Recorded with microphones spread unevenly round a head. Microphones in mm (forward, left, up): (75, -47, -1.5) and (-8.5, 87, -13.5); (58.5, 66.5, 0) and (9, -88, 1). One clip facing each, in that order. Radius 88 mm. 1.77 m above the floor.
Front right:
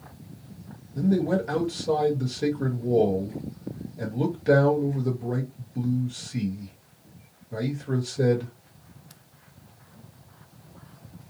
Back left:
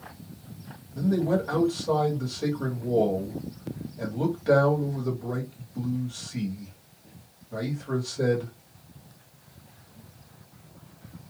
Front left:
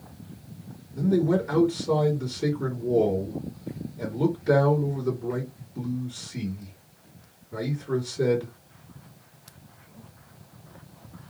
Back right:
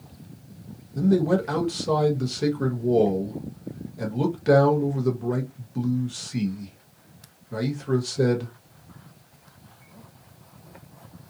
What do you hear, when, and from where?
0.9 s a man speaking: 135° right, 1.1 m